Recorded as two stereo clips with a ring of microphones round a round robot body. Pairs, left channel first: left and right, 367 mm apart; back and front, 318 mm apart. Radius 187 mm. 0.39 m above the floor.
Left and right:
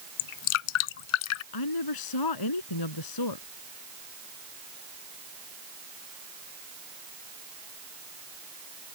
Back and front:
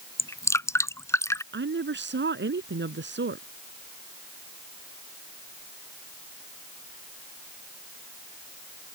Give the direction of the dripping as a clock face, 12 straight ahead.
9 o'clock.